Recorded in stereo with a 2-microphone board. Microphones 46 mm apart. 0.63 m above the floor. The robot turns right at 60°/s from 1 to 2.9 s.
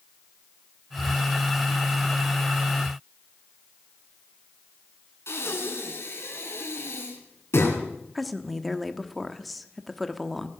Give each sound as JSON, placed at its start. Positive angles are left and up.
{"t": 5.3, "sound": "breathing", "side_deg": 65, "distance_m": 3.0}
{"t": 8.2, "sound": "a woman speaking", "side_deg": 0, "distance_m": 1.1}